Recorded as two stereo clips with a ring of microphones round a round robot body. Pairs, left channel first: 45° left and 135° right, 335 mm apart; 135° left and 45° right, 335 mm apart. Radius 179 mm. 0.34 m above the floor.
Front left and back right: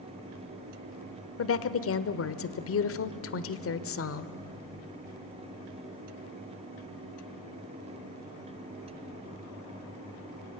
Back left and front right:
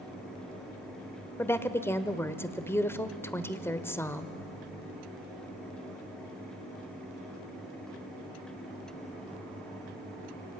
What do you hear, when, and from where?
1.4 s a woman speaking: 55° left, 1.1 m